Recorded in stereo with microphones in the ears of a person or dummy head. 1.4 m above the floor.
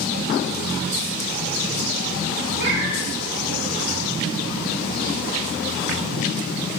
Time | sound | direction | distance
2.6 | a cat meowing | 50° right (ahead or behind) | 2 m